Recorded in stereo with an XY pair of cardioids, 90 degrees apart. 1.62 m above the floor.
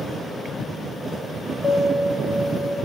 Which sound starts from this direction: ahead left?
A piano, at 1.6 s.